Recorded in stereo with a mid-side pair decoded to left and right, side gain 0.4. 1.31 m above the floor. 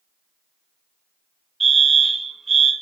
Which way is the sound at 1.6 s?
25° right.